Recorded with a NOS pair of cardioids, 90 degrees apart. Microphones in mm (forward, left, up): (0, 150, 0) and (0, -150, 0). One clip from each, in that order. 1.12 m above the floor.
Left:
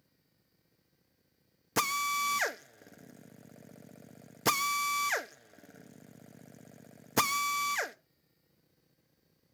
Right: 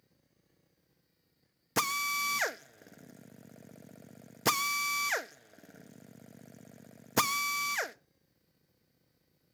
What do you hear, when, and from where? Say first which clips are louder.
1.8 s a drill: left 1 dB; 5° right, 0.9 m